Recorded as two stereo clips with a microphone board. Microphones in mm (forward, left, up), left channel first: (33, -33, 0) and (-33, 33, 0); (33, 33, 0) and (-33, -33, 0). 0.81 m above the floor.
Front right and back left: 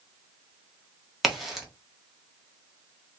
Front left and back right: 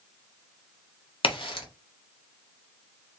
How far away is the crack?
About 1.4 m.